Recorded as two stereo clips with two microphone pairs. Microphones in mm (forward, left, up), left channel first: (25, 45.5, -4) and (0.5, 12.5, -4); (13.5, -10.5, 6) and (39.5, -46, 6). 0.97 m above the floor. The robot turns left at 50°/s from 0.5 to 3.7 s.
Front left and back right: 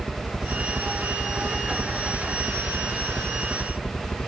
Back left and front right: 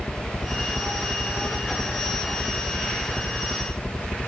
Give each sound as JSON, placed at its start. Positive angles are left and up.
{"t": 0.0, "sound": "a helicopter", "azimuth_deg": -130}